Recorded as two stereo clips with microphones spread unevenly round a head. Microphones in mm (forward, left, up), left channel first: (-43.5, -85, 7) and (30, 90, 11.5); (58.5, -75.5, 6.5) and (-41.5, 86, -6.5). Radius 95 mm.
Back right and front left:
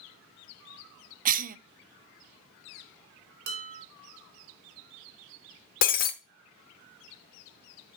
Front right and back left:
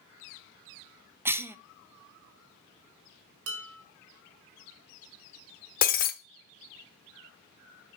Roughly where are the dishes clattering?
Left.